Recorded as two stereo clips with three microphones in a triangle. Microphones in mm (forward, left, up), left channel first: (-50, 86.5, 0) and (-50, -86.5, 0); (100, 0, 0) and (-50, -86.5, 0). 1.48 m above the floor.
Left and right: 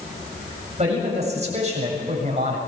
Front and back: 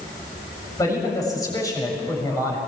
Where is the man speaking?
40° right, 7.5 m.